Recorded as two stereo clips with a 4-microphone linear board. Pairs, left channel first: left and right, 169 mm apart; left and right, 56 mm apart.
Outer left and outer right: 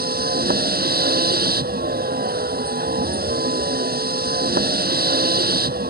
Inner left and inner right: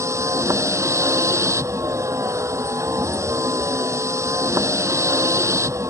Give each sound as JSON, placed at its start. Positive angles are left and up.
{"t": 0.0, "sound": "a vehicle", "side_deg": -65}